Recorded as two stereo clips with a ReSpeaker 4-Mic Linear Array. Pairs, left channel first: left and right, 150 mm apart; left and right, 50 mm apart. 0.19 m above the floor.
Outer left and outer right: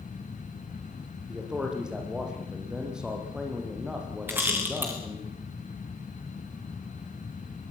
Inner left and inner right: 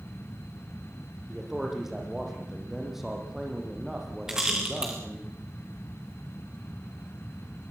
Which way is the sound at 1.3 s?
5° right (ahead or behind).